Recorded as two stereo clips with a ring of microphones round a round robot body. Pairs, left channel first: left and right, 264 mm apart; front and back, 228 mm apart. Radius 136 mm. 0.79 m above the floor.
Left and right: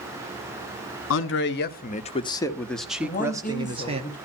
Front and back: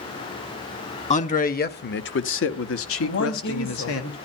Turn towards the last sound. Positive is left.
turn(degrees=30)